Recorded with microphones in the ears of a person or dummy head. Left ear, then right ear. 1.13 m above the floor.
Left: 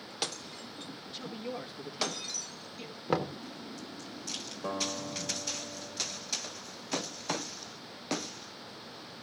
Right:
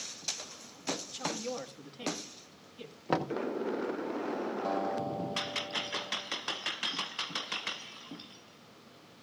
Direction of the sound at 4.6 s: 50° left (ahead or behind).